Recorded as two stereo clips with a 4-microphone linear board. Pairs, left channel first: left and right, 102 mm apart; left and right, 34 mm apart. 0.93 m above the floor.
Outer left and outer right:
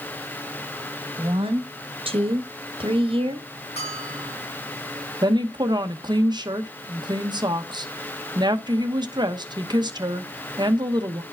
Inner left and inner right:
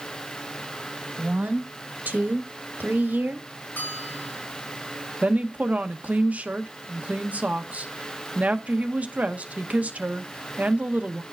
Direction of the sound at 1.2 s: 60° right (ahead or behind).